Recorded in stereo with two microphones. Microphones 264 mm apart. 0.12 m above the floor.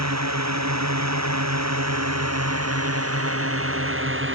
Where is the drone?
75° right (ahead or behind); by 4.4 s 45° right (ahead or behind).